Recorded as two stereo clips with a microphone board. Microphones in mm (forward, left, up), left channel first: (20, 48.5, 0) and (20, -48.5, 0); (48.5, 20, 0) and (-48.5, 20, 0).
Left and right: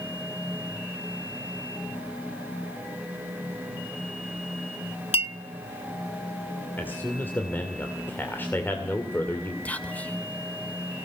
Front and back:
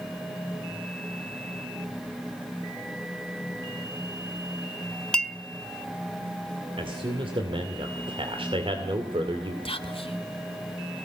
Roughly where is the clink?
Left.